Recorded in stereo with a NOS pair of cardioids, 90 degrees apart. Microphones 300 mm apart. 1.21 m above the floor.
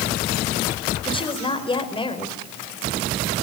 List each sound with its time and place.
1.1 s a woman speaking: 15° left, 4.5 m